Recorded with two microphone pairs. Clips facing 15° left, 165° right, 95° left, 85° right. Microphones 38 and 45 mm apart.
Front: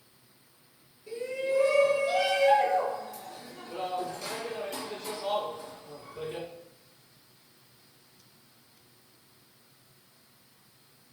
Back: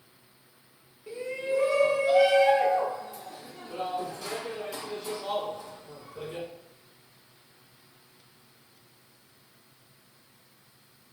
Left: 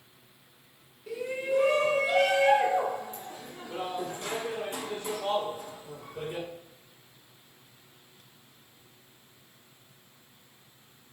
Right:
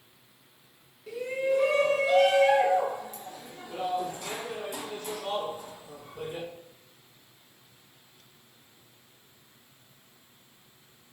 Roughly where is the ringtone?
No ringtone in this recording.